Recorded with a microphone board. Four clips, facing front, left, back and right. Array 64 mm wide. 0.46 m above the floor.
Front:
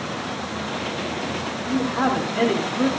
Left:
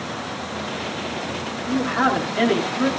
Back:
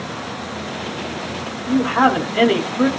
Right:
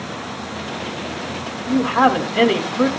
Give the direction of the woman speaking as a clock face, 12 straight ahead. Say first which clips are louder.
Right 5 dB, back 6 dB; 4 o'clock.